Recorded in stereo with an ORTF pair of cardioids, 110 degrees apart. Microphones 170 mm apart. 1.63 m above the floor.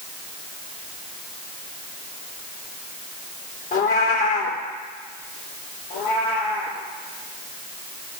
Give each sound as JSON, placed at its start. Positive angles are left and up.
{"t": 3.7, "sound": "a cat meowing", "azimuth_deg": 55, "distance_m": 3.0}
{"t": 5.9, "sound": "a cat meowing", "azimuth_deg": 70, "distance_m": 5.5}